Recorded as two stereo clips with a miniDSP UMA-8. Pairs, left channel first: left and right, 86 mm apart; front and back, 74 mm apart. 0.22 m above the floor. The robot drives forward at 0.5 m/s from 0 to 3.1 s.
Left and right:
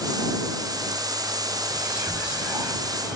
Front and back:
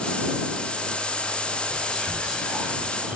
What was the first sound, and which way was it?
Whispering, 35° right.